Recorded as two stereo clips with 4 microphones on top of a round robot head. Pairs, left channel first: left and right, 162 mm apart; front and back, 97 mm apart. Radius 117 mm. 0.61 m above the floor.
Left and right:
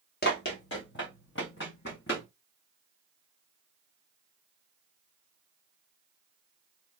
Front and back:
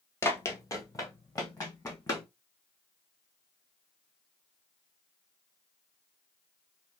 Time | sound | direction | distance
0.2 | running footsteps | 55° left | 0.7 m